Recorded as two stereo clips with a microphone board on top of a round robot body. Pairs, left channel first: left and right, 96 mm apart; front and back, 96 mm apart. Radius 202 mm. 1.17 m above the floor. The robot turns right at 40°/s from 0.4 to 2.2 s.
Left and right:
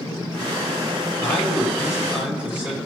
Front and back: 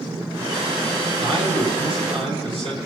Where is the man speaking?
155° left, 8 m; by 2.8 s 165° right, 8 m.